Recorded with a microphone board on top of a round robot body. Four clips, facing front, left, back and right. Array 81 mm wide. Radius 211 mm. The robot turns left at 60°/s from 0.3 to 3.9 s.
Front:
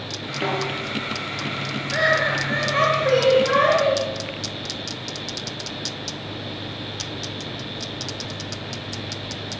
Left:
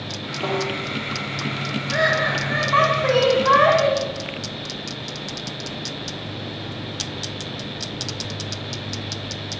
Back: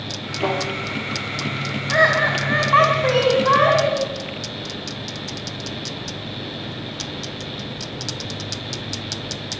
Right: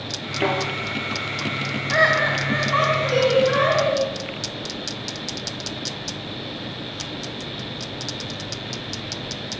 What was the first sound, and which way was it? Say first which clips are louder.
A snare drum: right 2 dB, back 2 dB; 75° right.